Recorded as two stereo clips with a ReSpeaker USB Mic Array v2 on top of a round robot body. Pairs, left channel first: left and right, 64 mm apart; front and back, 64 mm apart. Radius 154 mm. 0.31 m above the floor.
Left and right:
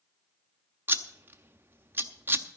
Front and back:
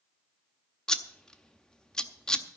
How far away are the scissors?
About 1.4 m.